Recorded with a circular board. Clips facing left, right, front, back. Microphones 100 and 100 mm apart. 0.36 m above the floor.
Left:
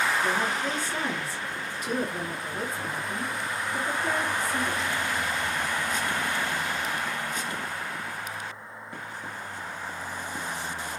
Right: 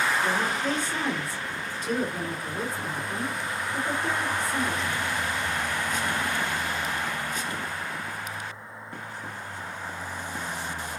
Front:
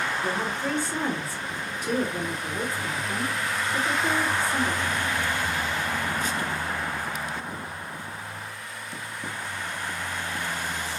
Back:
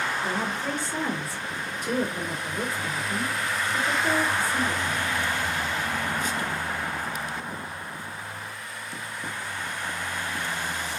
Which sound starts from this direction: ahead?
A woman speaking, at 0.2 s.